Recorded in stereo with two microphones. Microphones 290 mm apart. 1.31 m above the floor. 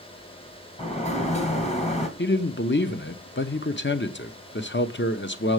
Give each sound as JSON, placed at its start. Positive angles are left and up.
{"t": 0.8, "sound": "a sliding door", "side_deg": 25, "distance_m": 1.5}
{"t": 2.2, "sound": "a man speaking", "side_deg": 40, "distance_m": 0.8}